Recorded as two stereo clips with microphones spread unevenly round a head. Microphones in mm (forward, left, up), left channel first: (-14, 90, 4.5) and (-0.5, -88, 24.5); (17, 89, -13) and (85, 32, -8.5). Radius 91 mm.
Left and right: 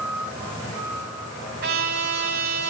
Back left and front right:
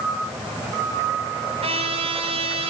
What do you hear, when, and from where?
1.6 s a trumpet: 45° right, 9 m